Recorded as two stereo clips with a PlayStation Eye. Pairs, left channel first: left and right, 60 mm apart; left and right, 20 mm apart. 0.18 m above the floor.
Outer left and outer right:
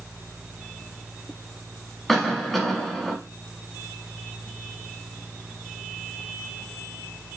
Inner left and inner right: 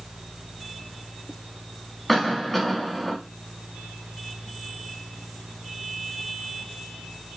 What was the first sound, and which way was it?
A cough, 5° left (ahead or behind).